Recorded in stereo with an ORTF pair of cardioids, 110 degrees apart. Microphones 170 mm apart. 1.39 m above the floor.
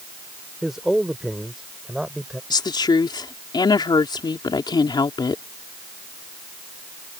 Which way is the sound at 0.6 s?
Straight ahead.